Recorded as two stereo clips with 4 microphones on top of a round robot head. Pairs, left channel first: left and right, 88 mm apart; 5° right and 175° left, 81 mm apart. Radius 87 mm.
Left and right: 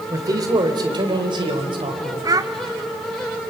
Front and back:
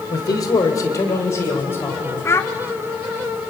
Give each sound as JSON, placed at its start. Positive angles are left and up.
{"t": 0.1, "sound": "a man speaking", "azimuth_deg": -40, "distance_m": 3.0}
{"t": 2.2, "sound": "a child speaking", "azimuth_deg": -55, "distance_m": 1.1}